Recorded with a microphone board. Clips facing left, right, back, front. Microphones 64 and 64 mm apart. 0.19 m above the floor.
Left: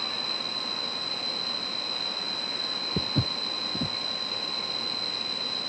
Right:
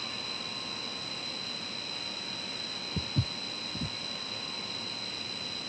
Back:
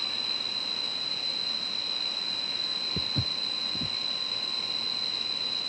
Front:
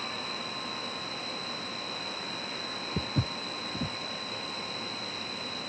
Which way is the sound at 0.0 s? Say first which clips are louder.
Left 5 dB, front 3 dB; 155° right.